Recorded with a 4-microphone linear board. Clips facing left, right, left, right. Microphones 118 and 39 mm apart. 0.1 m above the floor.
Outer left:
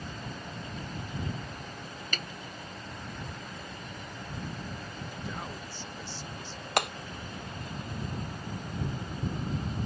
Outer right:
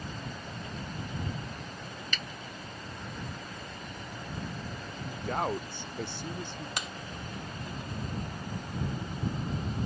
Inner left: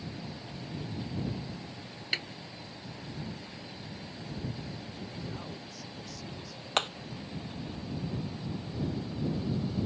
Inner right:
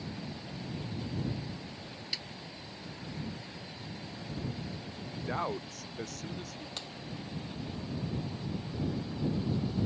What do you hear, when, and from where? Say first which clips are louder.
2.1 s a snare drum: outer left 2 dB, inner left 8 dB; 45° left (ahead or behind)
5.0 s a man speaking: outer right 10 dB, inner right 10 dB; 60° right (ahead or behind)
6.8 s hammering: outer left 13 dB, inner left 18 dB; 65° left (ahead or behind)